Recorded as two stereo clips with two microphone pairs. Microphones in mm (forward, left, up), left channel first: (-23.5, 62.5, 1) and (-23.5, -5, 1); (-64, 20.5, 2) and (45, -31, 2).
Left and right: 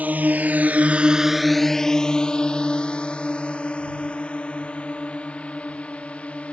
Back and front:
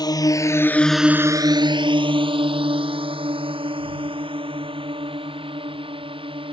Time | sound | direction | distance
0.0 | a drone | 150° right | ?